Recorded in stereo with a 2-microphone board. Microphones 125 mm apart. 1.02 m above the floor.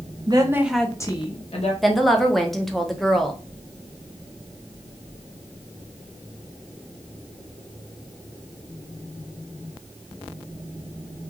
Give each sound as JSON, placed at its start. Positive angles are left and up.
{"t": 0.3, "sound": "a woman speaking", "side_deg": -35, "distance_m": 0.8}
{"t": 1.8, "sound": "a woman speaking", "side_deg": 0, "distance_m": 0.6}